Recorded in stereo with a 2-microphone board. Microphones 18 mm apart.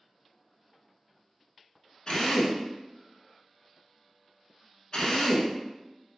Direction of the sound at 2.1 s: 50° left (ahead or behind).